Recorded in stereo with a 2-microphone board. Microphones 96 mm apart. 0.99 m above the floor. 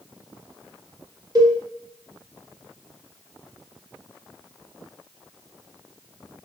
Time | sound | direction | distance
1.4 | a cowbell | 40° right (ahead or behind) | 0.8 m